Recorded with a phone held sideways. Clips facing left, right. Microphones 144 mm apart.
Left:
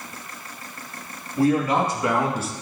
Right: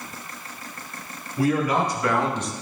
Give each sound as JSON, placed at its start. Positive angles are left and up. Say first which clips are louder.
{"t": 1.4, "sound": "a man speaking", "louder": "left 2 dB", "side_deg": 30, "distance_m": 2.5}